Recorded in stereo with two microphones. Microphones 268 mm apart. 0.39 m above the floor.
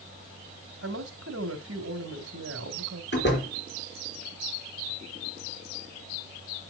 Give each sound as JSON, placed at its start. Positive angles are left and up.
{"t": 0.8, "sound": "a woman speaking", "side_deg": -55, "distance_m": 2.5}
{"t": 3.1, "sound": "a door slam", "side_deg": 40, "distance_m": 4.0}